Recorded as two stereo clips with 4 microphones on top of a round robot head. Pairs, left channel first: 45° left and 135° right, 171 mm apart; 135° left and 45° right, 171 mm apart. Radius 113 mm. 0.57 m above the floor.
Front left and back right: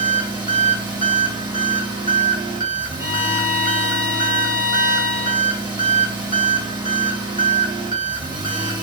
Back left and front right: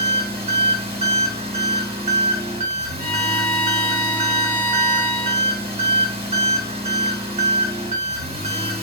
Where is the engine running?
80° right, 1.3 m.